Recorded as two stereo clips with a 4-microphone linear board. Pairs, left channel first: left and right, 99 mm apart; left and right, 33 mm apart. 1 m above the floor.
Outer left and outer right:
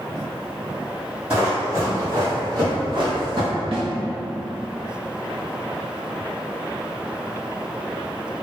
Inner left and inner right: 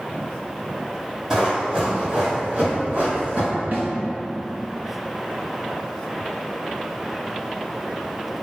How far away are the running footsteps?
About 1.5 m.